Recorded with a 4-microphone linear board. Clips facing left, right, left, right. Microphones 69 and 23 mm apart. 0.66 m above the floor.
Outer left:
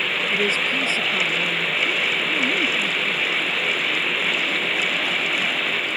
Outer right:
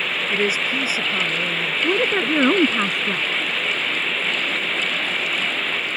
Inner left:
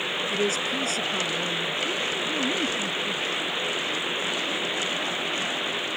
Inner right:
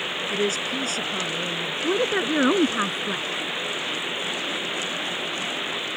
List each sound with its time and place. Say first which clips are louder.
0.3 s a woman speaking: outer right 2 dB, inner right 2 dB; 10° right (ahead or behind)
1.8 s a woman speaking: outer right 4 dB, inner right 4 dB; 80° right